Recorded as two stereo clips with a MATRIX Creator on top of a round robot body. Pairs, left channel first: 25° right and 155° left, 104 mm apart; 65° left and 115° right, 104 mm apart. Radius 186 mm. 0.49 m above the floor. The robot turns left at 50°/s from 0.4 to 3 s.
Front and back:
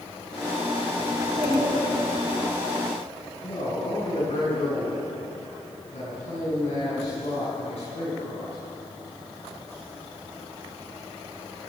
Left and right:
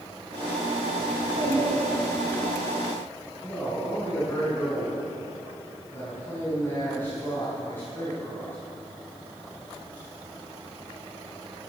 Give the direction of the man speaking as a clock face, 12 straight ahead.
12 o'clock.